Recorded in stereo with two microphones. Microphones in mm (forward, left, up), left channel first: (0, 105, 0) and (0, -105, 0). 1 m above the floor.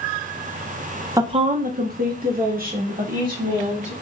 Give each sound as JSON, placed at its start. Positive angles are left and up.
{"t": 1.2, "sound": "a woman speaking", "side_deg": -15, "distance_m": 0.5}